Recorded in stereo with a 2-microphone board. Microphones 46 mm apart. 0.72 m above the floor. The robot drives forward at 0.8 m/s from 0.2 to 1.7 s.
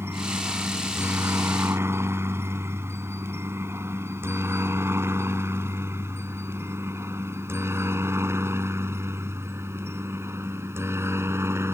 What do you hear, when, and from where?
0.0 s a helicopter: 70° right (ahead or behind); by 11.8 s 80° right